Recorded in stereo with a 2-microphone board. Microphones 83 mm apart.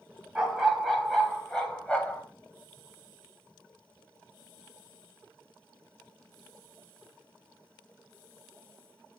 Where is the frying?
No frying in this recording.